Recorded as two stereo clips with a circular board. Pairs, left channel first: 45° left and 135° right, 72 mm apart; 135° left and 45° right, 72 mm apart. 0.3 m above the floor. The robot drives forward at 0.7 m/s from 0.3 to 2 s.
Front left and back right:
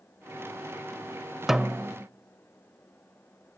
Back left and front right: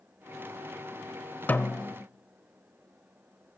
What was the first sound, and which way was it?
A snare drum, 145° left.